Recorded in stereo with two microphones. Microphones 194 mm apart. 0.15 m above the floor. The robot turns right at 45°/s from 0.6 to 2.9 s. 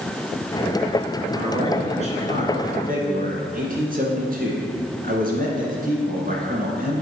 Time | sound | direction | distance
1.3 | a man speaking | 160° right | 1.8 m